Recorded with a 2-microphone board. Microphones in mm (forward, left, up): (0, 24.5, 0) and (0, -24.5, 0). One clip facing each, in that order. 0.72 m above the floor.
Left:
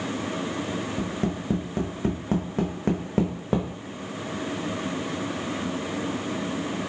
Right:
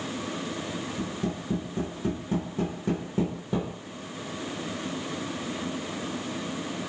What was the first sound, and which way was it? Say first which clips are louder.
Tapping: left 3 dB; 65° left (ahead or behind).